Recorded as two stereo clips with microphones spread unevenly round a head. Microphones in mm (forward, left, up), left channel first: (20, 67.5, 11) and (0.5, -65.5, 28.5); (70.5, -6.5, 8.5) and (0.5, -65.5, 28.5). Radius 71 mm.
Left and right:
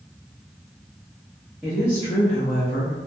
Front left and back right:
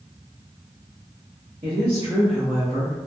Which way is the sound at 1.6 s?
Straight behind.